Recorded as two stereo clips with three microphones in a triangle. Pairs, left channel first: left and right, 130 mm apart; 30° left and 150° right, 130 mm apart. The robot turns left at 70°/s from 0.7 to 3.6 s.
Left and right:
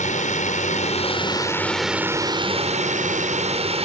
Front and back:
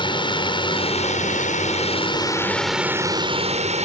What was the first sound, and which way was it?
A drone, 80° left.